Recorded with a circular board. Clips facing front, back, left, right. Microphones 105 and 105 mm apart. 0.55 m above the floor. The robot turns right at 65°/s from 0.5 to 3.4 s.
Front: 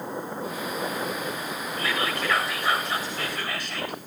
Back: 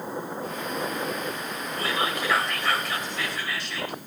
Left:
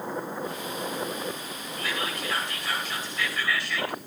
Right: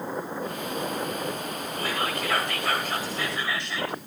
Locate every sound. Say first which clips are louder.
1.8 s whispering: back 1 dB, right 3 dB; 130° right, 3 m; by 4.0 s 25° right, 3 m